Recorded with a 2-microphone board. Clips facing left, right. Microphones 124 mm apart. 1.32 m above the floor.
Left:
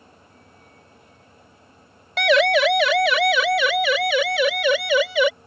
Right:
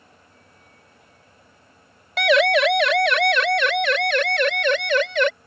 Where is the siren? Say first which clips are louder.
Even; centre (ahead or behind); by 5.3 s 5° left (ahead or behind).